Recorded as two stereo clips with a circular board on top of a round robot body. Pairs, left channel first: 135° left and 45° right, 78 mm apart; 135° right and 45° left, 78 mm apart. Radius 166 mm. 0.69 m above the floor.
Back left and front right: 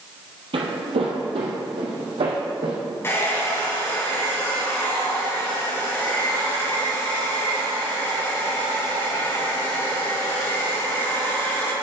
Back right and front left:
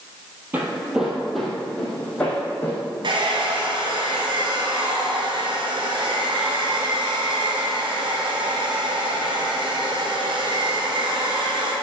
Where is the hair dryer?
75° left, 3 m.